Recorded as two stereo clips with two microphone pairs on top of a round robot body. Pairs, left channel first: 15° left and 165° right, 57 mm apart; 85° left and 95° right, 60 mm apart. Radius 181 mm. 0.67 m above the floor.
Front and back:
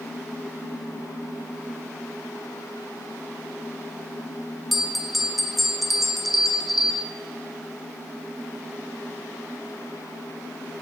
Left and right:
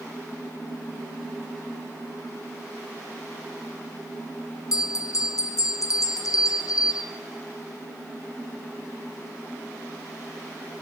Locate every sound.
4.7 s a bell: 100° left, 1.5 m